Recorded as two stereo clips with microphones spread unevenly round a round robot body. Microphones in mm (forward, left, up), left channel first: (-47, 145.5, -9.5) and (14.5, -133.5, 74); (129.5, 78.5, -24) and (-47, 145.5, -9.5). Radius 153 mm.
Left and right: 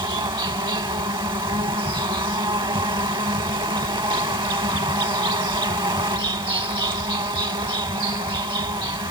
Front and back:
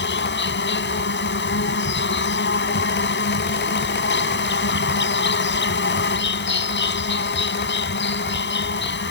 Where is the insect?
Straight ahead.